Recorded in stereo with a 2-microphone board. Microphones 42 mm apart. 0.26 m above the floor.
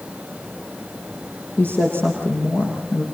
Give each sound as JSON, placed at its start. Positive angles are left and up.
{"t": 1.6, "sound": "a woman speaking", "side_deg": 40, "distance_m": 8.0}